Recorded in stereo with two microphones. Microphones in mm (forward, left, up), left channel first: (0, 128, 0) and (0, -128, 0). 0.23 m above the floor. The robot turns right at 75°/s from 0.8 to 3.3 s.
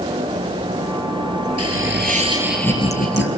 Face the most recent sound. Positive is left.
turn(degrees=55)